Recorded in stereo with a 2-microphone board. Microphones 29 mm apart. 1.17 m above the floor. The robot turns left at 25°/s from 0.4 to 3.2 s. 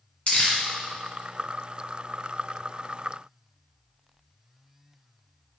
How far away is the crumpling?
About 1.8 m.